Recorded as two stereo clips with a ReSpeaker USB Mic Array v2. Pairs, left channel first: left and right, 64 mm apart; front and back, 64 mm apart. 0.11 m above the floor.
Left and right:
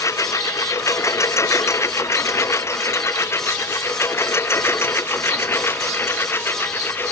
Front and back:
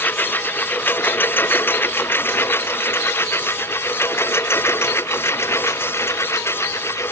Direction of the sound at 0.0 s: 60° left.